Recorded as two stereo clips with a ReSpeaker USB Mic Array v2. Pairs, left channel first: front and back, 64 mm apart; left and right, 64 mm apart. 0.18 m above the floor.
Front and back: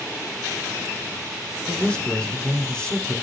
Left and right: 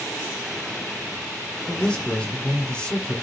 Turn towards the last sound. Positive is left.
turn(degrees=45)